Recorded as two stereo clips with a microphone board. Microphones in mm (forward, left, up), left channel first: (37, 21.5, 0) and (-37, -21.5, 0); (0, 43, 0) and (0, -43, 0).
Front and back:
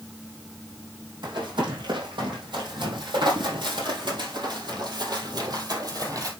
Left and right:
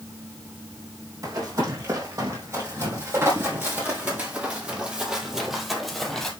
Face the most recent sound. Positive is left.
turn(degrees=175)